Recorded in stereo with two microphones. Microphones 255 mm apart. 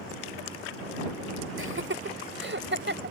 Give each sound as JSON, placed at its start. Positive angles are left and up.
{"t": 1.6, "sound": "laughter", "side_deg": -50}